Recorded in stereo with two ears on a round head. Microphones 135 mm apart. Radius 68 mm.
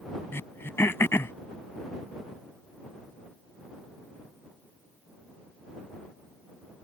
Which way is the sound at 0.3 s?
15° left (ahead or behind).